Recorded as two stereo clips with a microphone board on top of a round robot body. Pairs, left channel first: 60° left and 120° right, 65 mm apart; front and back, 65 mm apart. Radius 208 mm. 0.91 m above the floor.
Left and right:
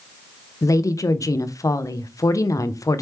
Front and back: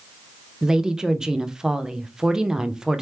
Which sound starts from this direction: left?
A woman speaking, at 0.6 s.